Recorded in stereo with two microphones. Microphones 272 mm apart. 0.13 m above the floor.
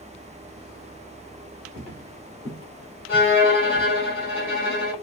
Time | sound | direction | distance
1.8 | footsteps | 35° right (ahead or behind) | 3.5 m
3.1 | a violin | 50° right (ahead or behind) | 3.5 m